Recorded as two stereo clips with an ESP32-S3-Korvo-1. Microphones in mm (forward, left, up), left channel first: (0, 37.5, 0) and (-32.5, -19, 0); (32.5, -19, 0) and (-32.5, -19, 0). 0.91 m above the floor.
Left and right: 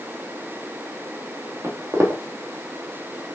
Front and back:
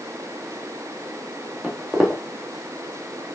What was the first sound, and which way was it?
Footsteps, 115° right.